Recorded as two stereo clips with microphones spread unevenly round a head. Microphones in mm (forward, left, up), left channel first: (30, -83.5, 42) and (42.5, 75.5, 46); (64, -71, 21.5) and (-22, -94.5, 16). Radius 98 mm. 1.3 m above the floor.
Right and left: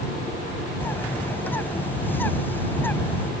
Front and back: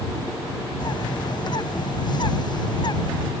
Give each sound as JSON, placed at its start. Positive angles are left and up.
{"t": 0.8, "sound": "a bird", "azimuth_deg": -15}